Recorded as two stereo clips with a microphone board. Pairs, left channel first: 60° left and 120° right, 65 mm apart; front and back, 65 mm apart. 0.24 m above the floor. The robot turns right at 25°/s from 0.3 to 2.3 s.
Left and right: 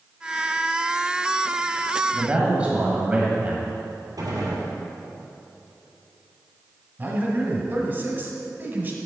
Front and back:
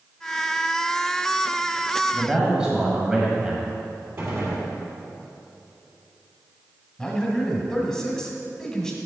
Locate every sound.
2.1 s a man speaking: 130° right, 1.1 m; by 3.7 s 125° right, 1.1 m
4.2 s a gunshot: 130° right, 2.5 m
7.0 s a man speaking: 75° right, 1.4 m